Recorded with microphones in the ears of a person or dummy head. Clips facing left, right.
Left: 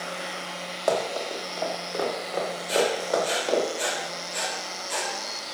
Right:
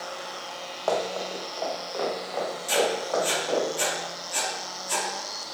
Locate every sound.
0.9 s running footsteps: 25° left (ahead or behind), 2.5 m; by 3.7 s 30° left (ahead or behind), 4.5 m
2.7 s writing: 70° right (ahead or behind), 2 m